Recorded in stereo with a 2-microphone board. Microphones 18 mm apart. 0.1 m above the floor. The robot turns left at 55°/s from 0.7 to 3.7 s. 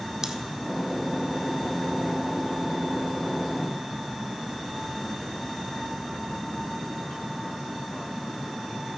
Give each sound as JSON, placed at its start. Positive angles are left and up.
{"t": 0.2, "sound": "scissors", "side_deg": -30, "distance_m": 0.6}